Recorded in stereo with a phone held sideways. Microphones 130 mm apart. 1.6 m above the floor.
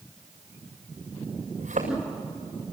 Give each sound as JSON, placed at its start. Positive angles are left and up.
{"t": 1.6, "sound": "a thud", "side_deg": -75, "distance_m": 7.5}